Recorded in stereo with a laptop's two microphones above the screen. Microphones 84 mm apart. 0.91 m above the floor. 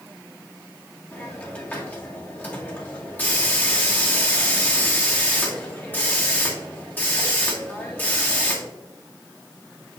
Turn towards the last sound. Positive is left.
turn(degrees=25)  # may be behind; listen again after turning